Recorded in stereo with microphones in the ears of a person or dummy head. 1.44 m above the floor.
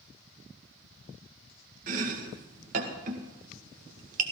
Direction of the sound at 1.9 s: 50° right (ahead or behind).